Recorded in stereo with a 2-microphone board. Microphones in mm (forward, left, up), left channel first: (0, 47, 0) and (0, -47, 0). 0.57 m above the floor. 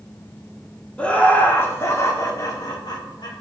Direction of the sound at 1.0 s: 10° left (ahead or behind).